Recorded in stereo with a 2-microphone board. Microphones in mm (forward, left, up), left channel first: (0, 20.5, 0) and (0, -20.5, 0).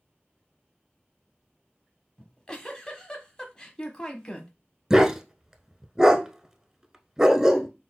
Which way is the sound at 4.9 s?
10° right (ahead or behind).